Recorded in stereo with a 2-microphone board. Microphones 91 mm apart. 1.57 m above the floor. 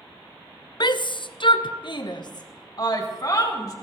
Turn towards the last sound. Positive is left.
turn(degrees=40)  # may be behind; listen again after turning